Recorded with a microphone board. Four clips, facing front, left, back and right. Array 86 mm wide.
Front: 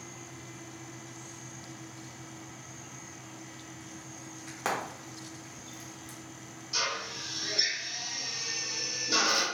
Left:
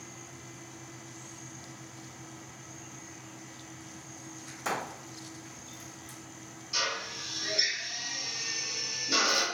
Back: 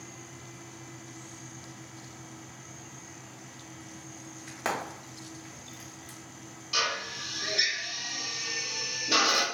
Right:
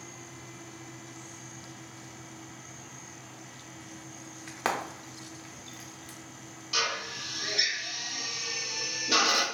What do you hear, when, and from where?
4.5 s frying: 85° right, 0.7 m
6.7 s a drill: 135° right, 0.7 m